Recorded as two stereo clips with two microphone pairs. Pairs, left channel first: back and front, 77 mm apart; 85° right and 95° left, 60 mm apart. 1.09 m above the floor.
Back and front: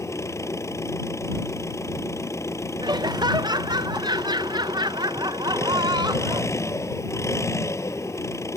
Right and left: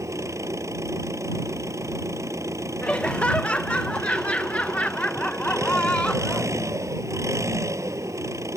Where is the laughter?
15° right.